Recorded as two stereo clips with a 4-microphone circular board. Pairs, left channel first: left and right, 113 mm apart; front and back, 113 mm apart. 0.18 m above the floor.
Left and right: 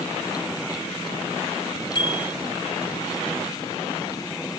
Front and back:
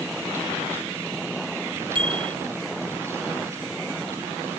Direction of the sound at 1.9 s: 140° left.